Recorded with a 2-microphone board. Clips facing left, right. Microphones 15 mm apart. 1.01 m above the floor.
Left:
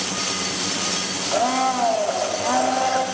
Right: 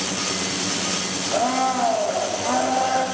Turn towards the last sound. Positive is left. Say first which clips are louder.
# left 1 dB
turn(degrees=5)  # may be behind; listen again after turning